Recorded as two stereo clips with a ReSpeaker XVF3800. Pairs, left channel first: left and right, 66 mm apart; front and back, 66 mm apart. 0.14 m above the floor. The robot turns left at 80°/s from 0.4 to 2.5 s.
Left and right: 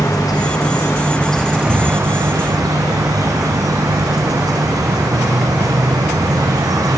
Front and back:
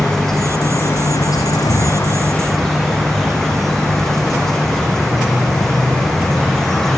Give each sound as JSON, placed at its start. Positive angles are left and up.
{"t": 0.0, "sound": "an insect", "azimuth_deg": 85, "distance_m": 4.0}